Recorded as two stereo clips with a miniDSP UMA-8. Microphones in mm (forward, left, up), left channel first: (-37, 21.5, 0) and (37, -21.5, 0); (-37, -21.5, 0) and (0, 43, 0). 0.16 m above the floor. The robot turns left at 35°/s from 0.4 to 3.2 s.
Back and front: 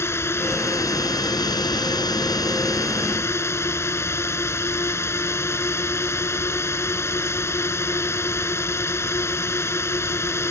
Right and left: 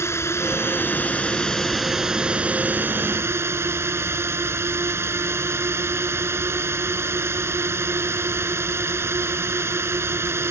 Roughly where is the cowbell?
I don't hear a cowbell.